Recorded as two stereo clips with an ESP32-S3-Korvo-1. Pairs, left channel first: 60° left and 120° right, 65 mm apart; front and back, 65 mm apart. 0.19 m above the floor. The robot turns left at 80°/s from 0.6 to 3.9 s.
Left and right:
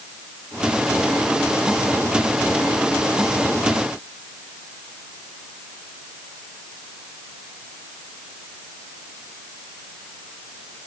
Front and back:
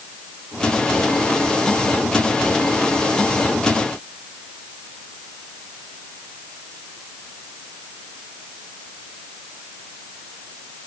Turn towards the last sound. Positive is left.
No sound to turn to.